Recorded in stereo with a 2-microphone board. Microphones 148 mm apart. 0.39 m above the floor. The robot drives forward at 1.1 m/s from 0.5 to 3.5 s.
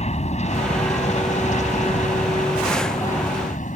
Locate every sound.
0.0 s an aircraft: 50° left (ahead or behind); by 3.8 s 60° left (ahead or behind)